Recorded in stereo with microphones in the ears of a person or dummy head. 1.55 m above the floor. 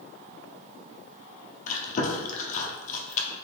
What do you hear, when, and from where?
1.7 s chewing: 40° left (ahead or behind), 0.7 m